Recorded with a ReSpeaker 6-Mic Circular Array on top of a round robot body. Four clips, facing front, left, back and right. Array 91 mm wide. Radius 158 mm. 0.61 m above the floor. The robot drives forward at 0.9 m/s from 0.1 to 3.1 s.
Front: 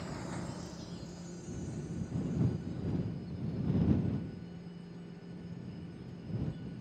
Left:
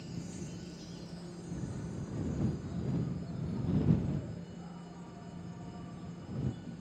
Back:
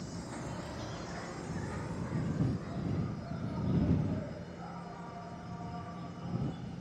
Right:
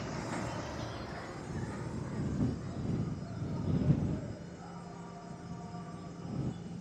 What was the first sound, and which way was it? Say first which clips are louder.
An insect: right 6 dB, front 1 dB; 70° right.